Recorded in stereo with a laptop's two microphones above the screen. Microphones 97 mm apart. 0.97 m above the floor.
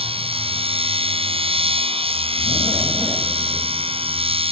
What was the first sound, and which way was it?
A machine running, 75° right (ahead or behind).